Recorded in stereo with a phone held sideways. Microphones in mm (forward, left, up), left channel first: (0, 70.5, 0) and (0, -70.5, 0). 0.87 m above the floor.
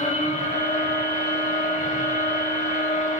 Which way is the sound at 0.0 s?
60° left (ahead or behind).